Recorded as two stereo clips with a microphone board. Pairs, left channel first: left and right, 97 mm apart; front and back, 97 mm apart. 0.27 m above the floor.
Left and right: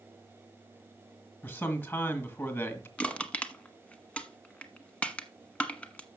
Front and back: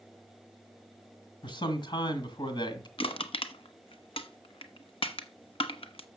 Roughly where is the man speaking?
Ahead left.